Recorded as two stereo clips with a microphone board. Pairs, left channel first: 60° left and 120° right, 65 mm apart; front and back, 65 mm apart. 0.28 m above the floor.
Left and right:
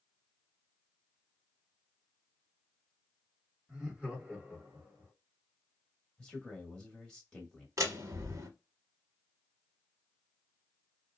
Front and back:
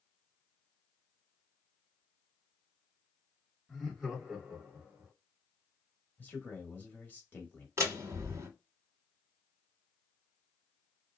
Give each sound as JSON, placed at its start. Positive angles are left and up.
{"t": 3.7, "sound": "laughter", "azimuth_deg": -70, "distance_m": 1.2}
{"t": 6.2, "sound": "a man speaking", "azimuth_deg": -5, "distance_m": 1.1}
{"t": 7.8, "sound": "a door slam", "azimuth_deg": -145, "distance_m": 1.1}